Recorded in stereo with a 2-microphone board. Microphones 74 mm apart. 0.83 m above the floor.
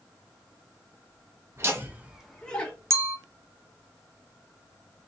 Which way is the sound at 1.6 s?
40° right (ahead or behind).